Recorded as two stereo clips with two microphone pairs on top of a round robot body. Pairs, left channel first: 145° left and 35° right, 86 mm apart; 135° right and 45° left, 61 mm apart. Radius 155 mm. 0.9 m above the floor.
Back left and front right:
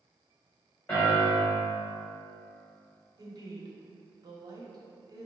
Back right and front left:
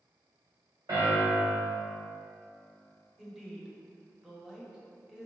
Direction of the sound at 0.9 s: 75° left.